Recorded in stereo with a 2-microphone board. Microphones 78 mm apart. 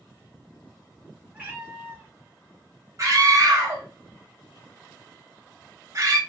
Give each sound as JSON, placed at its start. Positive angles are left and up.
{"t": 1.3, "sound": "a cat meowing", "side_deg": -20, "distance_m": 1.5}
{"t": 3.0, "sound": "a scream", "side_deg": -45, "distance_m": 1.4}